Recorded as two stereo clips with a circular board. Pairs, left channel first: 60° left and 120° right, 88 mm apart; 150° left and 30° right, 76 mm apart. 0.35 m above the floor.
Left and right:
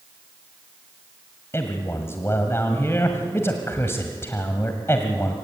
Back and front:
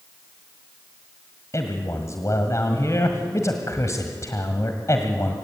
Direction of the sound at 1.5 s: 115° left.